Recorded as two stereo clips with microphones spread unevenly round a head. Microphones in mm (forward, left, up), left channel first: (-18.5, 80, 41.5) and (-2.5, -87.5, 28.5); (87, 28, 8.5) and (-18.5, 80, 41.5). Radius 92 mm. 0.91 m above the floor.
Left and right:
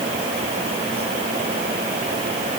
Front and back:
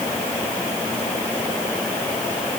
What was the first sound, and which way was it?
Only background noise.